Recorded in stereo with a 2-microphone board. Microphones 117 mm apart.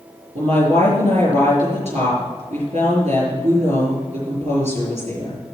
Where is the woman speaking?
75° right (ahead or behind), 5.5 m.